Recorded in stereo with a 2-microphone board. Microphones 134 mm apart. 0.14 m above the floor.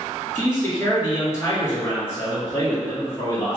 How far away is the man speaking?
About 1.8 m.